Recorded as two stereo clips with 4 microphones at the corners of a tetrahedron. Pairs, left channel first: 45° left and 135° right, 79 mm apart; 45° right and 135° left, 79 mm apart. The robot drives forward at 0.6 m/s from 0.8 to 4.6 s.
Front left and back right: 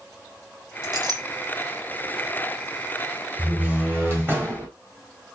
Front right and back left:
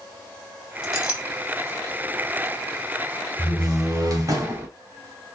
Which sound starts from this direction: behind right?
A clink, at 0.8 s.